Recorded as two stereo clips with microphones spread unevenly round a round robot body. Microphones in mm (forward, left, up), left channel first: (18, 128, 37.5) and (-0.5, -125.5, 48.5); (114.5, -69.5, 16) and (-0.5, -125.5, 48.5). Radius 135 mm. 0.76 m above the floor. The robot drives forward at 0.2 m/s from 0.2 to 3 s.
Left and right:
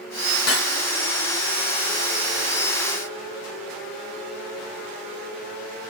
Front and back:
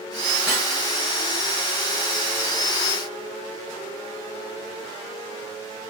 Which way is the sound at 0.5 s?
120° left.